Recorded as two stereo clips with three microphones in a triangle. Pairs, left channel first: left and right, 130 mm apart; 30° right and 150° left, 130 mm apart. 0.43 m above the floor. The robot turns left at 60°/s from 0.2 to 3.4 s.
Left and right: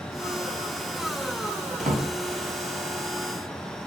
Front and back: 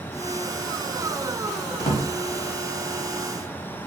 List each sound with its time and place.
1.8 s a drawer: 60° right, 0.8 m; by 2.0 s 75° right, 0.8 m